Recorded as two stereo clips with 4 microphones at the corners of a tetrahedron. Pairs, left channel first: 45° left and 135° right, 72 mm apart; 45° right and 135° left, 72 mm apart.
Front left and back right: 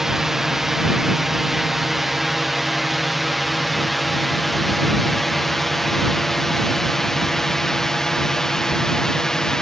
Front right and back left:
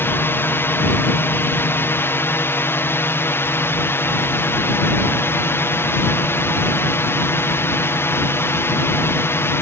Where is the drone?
55° right; by 9.6 s 30° right.